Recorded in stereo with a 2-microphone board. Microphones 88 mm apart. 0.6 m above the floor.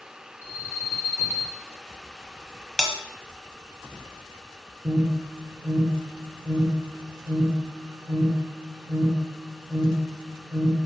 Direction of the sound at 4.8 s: 10° right (ahead or behind).